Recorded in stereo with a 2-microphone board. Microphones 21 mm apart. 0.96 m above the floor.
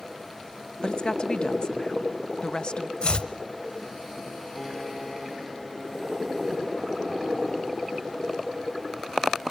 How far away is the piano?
About 8 m.